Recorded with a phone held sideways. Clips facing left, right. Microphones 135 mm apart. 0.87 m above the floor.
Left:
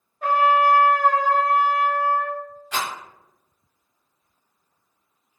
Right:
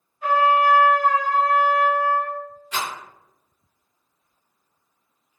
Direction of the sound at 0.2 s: 50° left (ahead or behind).